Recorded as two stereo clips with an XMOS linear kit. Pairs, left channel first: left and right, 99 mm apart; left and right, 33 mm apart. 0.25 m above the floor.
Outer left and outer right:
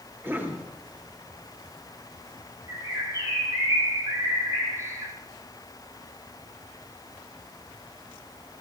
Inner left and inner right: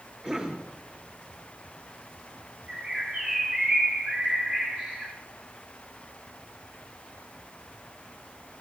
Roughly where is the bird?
Right.